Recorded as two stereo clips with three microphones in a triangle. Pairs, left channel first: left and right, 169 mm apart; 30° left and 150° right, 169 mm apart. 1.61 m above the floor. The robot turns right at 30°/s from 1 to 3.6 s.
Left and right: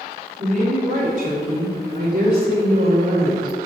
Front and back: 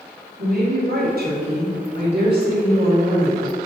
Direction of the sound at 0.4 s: 130° right.